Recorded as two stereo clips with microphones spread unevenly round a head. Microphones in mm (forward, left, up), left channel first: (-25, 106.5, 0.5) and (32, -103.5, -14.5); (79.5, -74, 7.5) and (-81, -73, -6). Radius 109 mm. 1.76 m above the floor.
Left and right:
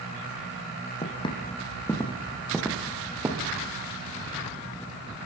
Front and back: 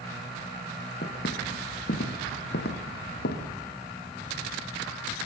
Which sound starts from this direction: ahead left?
Footsteps, at 1.0 s.